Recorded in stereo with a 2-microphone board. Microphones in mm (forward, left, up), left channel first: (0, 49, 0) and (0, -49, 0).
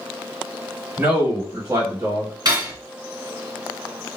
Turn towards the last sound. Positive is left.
turn(degrees=-40)  # may be behind; listen again after turning